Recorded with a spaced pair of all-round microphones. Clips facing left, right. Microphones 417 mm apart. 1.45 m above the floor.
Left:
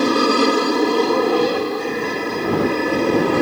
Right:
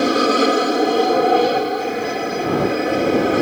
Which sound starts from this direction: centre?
An aircraft, at 0.0 s.